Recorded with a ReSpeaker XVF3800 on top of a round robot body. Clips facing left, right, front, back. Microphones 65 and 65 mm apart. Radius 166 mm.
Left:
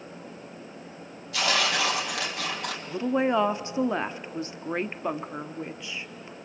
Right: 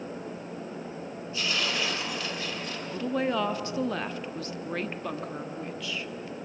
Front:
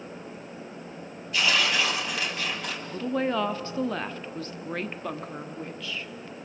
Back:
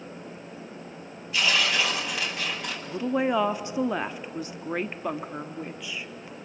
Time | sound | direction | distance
1.3 | tearing paper | 90° left | 3.5 m
2.9 | a woman speaking | 125° left | 1.0 m